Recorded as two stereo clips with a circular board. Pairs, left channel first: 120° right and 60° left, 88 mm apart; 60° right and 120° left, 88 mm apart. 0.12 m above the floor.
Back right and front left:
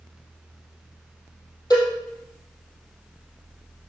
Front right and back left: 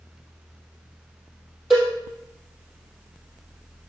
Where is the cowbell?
155° right, 3.5 m.